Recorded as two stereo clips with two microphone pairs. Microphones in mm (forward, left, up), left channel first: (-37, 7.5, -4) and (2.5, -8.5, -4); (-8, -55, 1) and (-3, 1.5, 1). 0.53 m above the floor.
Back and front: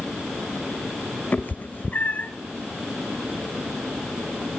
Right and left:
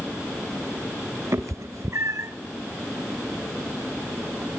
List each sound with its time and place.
1.3 s a cat meowing: 110° left, 0.8 m